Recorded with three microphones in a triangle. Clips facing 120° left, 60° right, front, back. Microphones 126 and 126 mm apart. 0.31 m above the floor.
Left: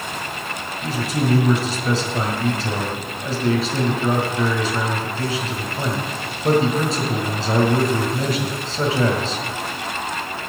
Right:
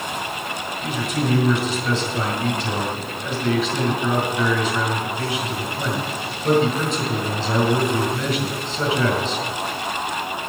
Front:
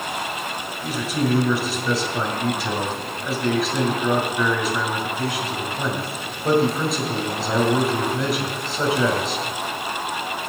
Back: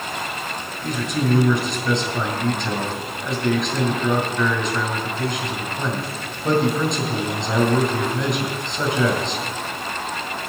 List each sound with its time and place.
0.8 s a man speaking: 85° left, 1.9 m